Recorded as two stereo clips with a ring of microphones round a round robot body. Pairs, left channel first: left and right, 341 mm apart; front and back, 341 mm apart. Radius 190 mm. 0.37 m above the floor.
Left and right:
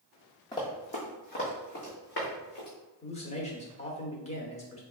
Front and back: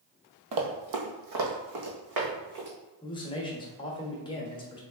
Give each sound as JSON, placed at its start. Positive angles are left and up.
{"t": 0.5, "sound": "running footsteps", "azimuth_deg": 170, "distance_m": 0.7}
{"t": 3.0, "sound": "a man speaking", "azimuth_deg": 55, "distance_m": 0.9}